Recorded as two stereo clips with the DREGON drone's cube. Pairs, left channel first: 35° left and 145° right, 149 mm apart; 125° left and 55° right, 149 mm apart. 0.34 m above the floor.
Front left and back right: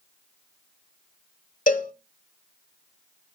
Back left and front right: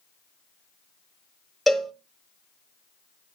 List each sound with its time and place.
1.7 s a cowbell: 35° left, 1.1 m